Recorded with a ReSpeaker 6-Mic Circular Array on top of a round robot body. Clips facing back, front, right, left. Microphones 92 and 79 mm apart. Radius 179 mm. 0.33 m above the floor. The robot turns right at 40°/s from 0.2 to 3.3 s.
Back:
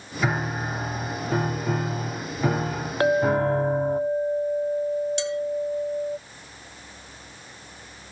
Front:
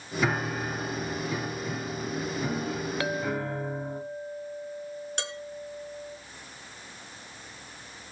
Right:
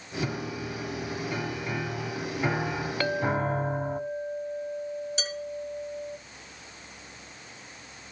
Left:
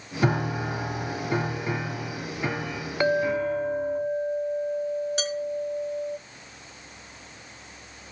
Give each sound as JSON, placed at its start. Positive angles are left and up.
{"t": 0.2, "sound": "a piano", "azimuth_deg": 95, "distance_m": 1.1}
{"t": 3.0, "sound": "a clink", "azimuth_deg": 155, "distance_m": 0.6}
{"t": 5.2, "sound": "dishes clattering", "azimuth_deg": 45, "distance_m": 4.0}